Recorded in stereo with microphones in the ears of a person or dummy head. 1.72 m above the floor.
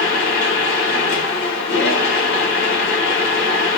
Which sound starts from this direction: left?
A machine running, at 0.0 s.